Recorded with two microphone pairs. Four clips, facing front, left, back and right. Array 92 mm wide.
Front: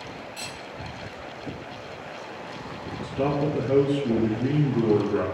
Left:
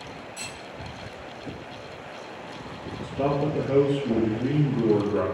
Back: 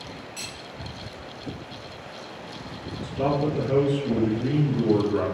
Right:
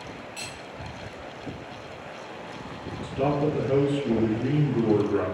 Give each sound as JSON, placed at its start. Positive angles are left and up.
{"t": 0.4, "sound": "cutlery clinking", "azimuth_deg": -145, "distance_m": 1.6}
{"t": 3.0, "sound": "a man speaking", "azimuth_deg": -35, "distance_m": 1.7}